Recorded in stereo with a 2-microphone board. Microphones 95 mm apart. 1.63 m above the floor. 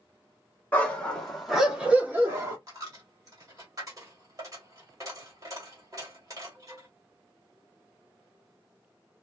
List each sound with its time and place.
0.7 s a dog barking: 15° left (ahead or behind), 1.4 m; by 2.6 s 30° right (ahead or behind), 1.3 m
2.7 s a dropped coin: 35° right (ahead or behind), 1.5 m